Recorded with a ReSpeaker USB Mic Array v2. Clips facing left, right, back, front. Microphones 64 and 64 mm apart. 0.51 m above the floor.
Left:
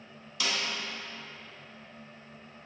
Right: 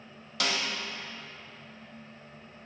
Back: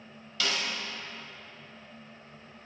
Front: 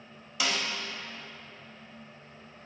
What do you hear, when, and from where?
0.4 s a snare drum: 75° right, 1.2 m